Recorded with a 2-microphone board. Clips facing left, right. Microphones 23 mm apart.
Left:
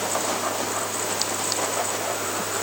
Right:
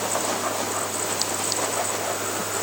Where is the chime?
No chime in this recording.